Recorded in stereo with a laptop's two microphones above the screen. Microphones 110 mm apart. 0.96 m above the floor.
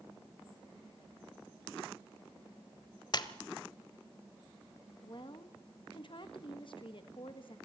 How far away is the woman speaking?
About 1.4 m.